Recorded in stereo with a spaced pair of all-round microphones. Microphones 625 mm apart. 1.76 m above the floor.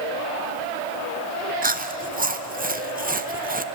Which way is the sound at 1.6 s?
15° right (ahead or behind).